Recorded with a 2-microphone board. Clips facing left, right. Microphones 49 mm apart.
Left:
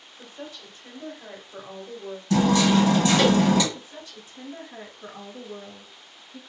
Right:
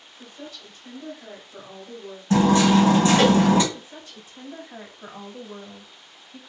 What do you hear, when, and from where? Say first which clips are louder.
0.2 s a woman speaking: left 1 dB; 30° left (ahead or behind), 1.1 m
2.3 s hammering: right 3 dB; 35° right (ahead or behind), 1.3 m
3.7 s a woman speaking: even; 45° right (ahead or behind), 1.5 m